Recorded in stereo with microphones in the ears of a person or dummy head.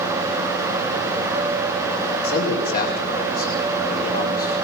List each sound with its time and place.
2.2 s a man speaking: 50° left (ahead or behind), 5.5 m